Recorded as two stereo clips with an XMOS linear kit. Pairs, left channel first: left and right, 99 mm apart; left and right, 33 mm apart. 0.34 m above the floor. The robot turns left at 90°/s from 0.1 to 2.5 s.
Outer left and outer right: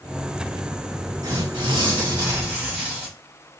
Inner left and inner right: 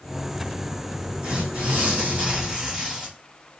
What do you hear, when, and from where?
1.2 s tearing paper: 50° right, 2 m; by 3.1 s 165° right, 2 m